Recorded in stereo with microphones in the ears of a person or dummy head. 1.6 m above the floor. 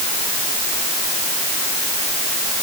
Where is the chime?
No chime in this recording.